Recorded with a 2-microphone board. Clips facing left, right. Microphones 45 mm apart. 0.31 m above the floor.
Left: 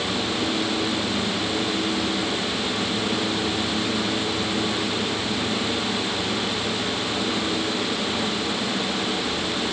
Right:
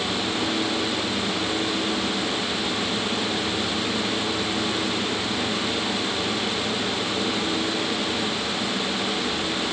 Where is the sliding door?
No sliding door in this recording.